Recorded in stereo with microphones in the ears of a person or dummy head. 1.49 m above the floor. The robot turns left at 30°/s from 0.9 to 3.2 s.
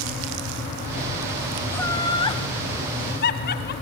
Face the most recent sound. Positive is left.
turn(degrees=55)  # may be behind; listen again after turning